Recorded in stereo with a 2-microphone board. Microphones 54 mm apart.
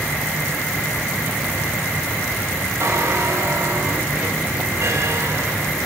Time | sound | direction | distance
2.8 | a squeak | 50° right (ahead or behind) | 4.5 m